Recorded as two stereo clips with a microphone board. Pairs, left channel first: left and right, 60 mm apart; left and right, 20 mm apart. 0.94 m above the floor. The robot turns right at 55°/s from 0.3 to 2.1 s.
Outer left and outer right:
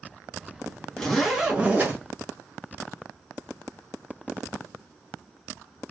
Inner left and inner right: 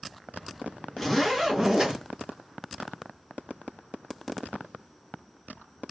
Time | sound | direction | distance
1.0 | a zipper | 170° left | 1.8 m